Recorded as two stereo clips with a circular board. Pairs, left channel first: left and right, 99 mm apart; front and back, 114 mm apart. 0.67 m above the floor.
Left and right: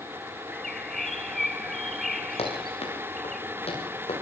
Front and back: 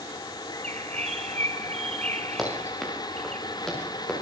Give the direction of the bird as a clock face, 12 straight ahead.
6 o'clock.